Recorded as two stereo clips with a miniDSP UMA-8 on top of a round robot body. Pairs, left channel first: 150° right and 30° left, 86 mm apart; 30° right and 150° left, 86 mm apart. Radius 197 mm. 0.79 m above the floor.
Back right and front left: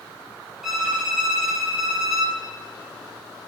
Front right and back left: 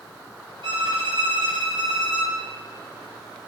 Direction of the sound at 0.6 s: 120° left.